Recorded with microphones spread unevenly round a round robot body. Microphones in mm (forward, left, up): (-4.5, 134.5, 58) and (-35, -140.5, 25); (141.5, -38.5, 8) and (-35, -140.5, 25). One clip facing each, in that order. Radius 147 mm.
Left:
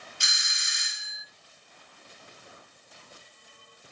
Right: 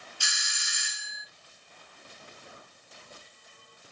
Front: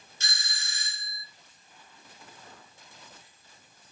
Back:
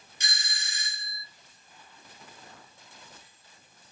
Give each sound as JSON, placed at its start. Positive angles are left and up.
{"t": 0.2, "sound": "a doorbell", "azimuth_deg": 145, "distance_m": 1.1}